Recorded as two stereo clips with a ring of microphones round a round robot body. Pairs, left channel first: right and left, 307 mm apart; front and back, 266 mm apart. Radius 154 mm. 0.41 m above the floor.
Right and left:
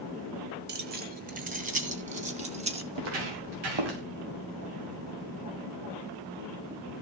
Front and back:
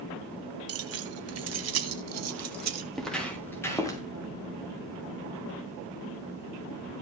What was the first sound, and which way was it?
Keys jangling, 150° left.